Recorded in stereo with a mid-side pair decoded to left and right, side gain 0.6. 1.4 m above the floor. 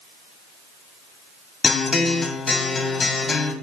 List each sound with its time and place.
1.6 s a guitar: 25° left, 1.4 m